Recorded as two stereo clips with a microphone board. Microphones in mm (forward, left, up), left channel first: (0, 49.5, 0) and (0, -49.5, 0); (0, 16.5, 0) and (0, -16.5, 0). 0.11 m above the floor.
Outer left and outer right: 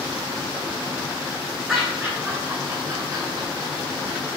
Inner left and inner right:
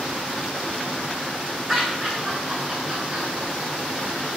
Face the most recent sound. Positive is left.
turn(degrees=-45)  # may be behind; listen again after turning